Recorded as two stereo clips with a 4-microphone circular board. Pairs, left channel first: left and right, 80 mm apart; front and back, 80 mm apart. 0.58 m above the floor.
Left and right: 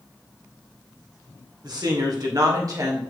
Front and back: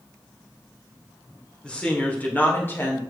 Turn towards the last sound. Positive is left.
turn(degrees=-55)